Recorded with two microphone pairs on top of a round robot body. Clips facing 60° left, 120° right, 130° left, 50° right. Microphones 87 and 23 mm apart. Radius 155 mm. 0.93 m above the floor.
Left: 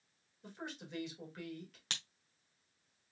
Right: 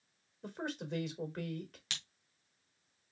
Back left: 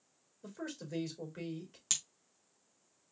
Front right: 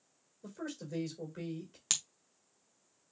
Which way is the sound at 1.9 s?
10° left.